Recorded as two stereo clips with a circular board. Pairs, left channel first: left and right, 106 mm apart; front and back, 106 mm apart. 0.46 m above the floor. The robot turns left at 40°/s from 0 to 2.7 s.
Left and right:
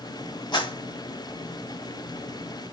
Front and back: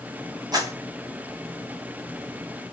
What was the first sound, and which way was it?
A clap, 135° left.